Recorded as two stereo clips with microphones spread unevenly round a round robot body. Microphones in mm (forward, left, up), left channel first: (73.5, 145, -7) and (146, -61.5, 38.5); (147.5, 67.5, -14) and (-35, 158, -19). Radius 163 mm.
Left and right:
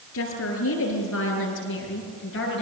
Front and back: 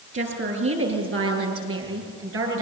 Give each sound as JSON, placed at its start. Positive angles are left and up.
{"t": 0.1, "sound": "a woman speaking", "azimuth_deg": 140, "distance_m": 8.0}